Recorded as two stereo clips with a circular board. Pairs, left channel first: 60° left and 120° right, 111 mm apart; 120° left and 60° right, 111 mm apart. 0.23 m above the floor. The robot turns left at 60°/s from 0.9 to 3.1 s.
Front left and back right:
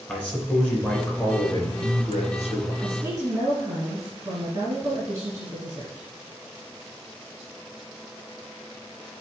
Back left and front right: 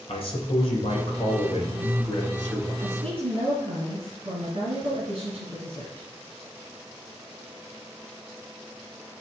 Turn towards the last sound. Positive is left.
turn(degrees=-60)